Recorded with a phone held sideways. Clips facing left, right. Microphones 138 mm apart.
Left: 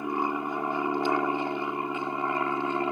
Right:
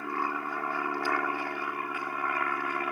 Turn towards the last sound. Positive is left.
turn(degrees=25)  # may be behind; listen again after turning